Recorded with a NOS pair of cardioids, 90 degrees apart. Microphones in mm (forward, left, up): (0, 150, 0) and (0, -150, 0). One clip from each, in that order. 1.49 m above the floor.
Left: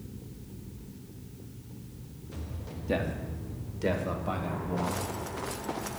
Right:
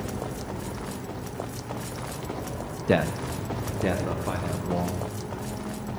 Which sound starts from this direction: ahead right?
A man speaking, at 2.9 s.